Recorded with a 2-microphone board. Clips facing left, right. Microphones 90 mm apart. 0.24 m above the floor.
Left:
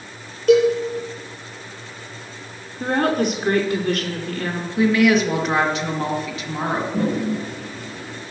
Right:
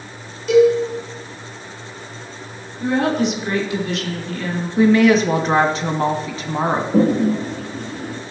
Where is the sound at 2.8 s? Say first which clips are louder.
Right 1 dB; 45° left (ahead or behind), 2.5 m.